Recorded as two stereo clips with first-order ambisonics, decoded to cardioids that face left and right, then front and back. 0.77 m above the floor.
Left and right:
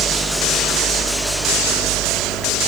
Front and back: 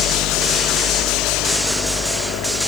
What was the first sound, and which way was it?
Only background noise.